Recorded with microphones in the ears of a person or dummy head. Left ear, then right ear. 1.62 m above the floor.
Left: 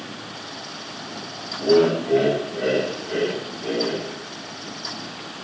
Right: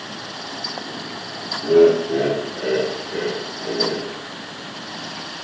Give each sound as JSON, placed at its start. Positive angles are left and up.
{"t": 1.6, "sound": "laughter", "side_deg": 75, "distance_m": 4.0}